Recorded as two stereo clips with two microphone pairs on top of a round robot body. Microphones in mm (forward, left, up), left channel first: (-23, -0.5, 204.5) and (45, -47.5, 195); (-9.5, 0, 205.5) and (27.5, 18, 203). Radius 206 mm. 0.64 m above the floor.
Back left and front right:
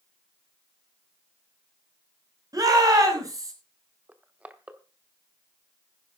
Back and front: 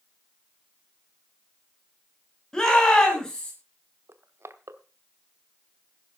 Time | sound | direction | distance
2.5 | a shout | 75° right | 7 m
4.1 | crushing | 40° left | 1.1 m